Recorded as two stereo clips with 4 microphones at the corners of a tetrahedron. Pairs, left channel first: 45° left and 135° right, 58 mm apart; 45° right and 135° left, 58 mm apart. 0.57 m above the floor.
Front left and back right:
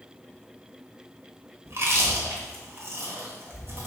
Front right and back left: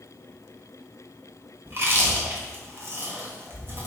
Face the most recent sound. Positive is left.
turn(degrees=180)